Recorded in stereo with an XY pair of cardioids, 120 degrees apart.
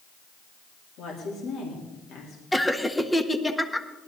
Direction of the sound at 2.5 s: 10° left.